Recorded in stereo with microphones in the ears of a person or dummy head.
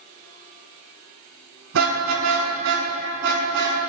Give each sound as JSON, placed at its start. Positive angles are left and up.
{"t": 1.7, "sound": "a car horn", "side_deg": -80, "distance_m": 5.0}